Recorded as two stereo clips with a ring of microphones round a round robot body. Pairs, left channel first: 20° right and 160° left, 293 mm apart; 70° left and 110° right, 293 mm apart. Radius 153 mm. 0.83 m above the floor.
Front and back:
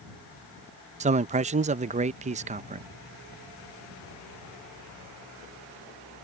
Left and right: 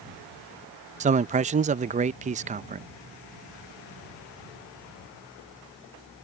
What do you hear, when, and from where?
1.0 s a man speaking: 155° right